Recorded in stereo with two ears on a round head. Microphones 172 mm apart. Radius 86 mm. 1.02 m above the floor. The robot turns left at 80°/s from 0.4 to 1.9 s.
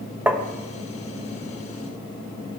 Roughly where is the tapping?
Centre.